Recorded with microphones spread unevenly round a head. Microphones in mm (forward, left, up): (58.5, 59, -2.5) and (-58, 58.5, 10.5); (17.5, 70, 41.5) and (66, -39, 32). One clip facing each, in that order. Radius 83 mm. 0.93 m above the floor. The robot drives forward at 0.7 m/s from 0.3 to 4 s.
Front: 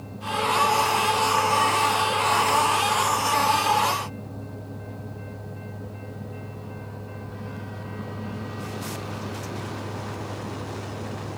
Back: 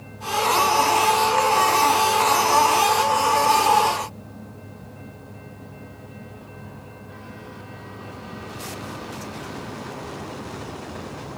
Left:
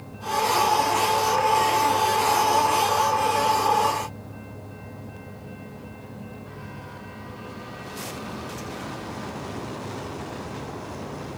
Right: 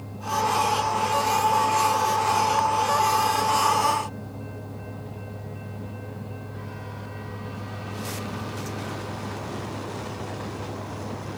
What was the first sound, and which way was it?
Only background noise.